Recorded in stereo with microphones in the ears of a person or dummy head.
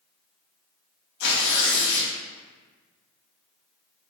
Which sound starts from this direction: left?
Tearing paper, at 1.2 s.